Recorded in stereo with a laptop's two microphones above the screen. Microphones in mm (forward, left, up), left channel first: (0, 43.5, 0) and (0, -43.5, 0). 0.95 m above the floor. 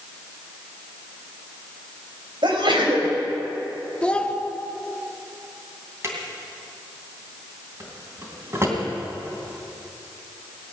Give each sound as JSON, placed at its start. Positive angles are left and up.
{"t": 2.4, "sound": "a sneeze", "side_deg": -80, "distance_m": 4.0}
{"t": 4.0, "sound": "a child speaking", "side_deg": 15, "distance_m": 1.0}
{"t": 6.0, "sound": "a drawer", "side_deg": -35, "distance_m": 2.5}